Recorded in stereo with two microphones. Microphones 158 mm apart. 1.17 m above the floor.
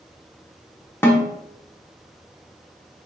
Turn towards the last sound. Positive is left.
turn(degrees=15)  # may be behind; listen again after turning